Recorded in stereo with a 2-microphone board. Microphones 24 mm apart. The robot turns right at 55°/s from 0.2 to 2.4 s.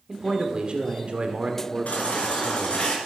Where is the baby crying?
85° left, 3 m; by 3.0 s 55° left (ahead or behind), 3 m.